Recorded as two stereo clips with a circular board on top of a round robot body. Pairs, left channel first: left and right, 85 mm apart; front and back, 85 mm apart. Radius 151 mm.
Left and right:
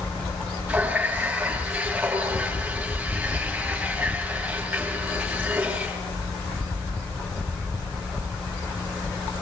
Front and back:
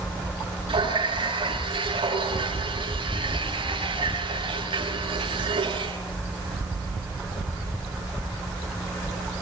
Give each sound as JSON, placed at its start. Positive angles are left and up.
{"t": 0.7, "sound": "a running tap", "azimuth_deg": -165, "distance_m": 8.0}